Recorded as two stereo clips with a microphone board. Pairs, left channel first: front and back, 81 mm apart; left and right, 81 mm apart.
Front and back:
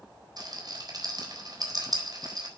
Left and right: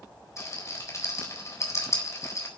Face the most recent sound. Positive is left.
turn(degrees=145)